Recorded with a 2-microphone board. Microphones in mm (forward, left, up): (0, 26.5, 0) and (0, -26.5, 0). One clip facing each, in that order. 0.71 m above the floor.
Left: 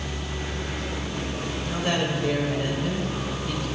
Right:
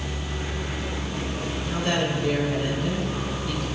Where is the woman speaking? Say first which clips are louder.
Right 1 dB; 15° left (ahead or behind), 2.5 m.